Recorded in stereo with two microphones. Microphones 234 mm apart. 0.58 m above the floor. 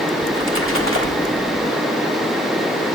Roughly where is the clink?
No clink in this recording.